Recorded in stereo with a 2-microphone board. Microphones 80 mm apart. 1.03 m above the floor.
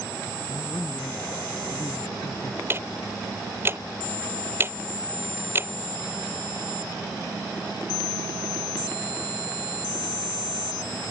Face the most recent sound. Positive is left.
turn(degrees=-30)  # may be behind; listen again after turning